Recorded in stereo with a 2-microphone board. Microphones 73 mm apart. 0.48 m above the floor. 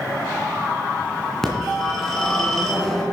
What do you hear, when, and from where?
1.4 s a phone ringing: 5° left (ahead or behind), 3 m